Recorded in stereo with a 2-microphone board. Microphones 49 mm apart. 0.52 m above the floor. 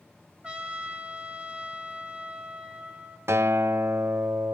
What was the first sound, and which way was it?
A trumpet, 20° right (ahead or behind).